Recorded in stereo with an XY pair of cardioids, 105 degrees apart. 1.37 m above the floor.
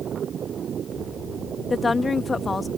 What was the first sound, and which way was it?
A woman speaking, 30° left.